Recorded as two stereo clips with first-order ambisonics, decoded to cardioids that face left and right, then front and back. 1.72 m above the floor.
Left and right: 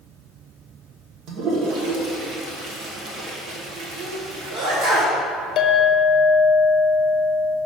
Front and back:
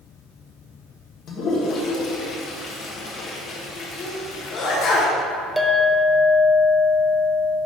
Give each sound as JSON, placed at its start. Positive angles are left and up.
{"t": 1.3, "sound": "a toilet flushing", "azimuth_deg": -50, "distance_m": 1.5}
{"t": 4.0, "sound": "a sneeze", "azimuth_deg": -55, "distance_m": 1.5}
{"t": 5.6, "sound": "a clink", "azimuth_deg": 95, "distance_m": 0.8}